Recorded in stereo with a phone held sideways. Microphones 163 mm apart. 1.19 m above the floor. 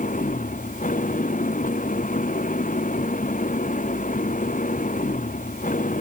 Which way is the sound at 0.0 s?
55° left (ahead or behind).